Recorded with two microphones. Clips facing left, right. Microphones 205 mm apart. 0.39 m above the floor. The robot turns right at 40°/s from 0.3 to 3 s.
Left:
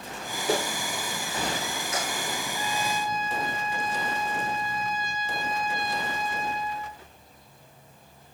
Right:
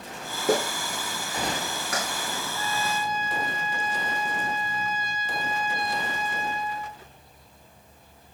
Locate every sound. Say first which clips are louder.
0.5 s a clap: right 3 dB; 45° right (ahead or behind), 3.5 m; by 2.0 s 70° right (ahead or behind), 3.5 m
2.5 s a trumpet: even; 25° right (ahead or behind), 4 m; by 7.0 s 10° right (ahead or behind), 4 m